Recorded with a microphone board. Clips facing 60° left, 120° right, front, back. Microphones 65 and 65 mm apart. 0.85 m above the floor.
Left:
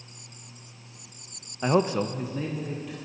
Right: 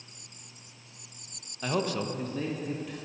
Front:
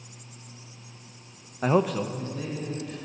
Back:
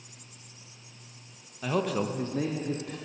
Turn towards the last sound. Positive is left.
turn(degrees=150)